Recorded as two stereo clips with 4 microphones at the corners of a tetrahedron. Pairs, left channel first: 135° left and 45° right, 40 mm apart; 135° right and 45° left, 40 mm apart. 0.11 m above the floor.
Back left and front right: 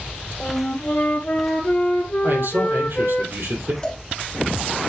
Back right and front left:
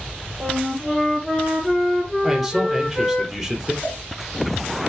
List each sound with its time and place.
0.4 s a flute: 140° left, 1.3 m
2.2 s a man speaking: 45° right, 4 m
3.8 s a cowbell: 160° right, 2 m